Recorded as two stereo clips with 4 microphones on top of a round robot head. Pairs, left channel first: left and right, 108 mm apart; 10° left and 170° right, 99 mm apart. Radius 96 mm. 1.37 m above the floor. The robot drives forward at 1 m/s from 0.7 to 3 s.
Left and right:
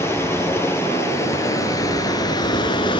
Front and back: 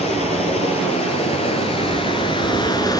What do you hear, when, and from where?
0.0 s running water: 25° left, 4 m; by 3.0 s 55° left, 2 m